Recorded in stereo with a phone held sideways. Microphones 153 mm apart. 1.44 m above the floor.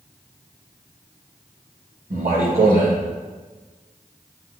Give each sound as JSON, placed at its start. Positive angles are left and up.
{"t": 2.1, "sound": "a man speaking", "side_deg": -80, "distance_m": 1.9}